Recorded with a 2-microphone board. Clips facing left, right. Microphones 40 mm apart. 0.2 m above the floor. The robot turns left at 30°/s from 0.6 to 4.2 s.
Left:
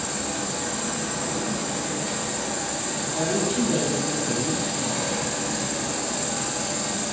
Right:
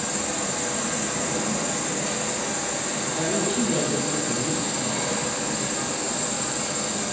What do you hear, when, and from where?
0.0 s an insect: 60° right, 0.8 m; by 7.1 s 170° right, 0.8 m
3.1 s a woman speaking: 135° right, 1.4 m; by 5.0 s 165° right, 1.4 m